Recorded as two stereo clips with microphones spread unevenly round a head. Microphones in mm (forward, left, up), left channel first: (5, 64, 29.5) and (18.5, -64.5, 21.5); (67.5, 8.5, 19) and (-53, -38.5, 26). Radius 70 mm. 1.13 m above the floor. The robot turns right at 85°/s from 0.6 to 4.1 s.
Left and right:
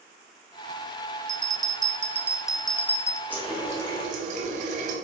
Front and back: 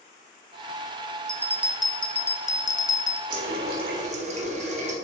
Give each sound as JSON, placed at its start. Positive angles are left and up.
{"t": 1.3, "sound": "a bell", "azimuth_deg": -110, "distance_m": 0.6}
{"t": 3.3, "sound": "a running tap", "azimuth_deg": 170, "distance_m": 1.5}